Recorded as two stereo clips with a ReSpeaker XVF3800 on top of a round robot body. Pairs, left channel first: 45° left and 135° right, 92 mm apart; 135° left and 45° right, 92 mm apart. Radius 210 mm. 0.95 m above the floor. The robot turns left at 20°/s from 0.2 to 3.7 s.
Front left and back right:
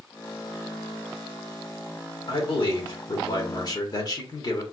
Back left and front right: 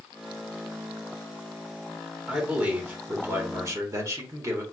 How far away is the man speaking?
About 1.4 m.